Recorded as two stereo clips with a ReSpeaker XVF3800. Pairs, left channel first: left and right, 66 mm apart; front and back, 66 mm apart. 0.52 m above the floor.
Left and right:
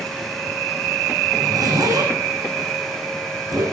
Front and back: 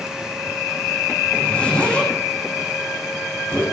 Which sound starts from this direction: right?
A zipper, at 1.3 s.